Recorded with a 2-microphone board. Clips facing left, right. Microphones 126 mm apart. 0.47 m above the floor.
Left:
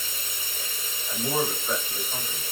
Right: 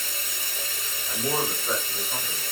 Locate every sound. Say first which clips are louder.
0.0 s running water: right 2 dB; 75° right (ahead or behind), 0.9 m
1.1 s a man speaking: left 1 dB; 35° right (ahead or behind), 1.5 m